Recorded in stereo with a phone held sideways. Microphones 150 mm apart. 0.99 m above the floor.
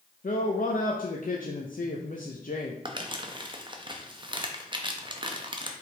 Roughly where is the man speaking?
Left.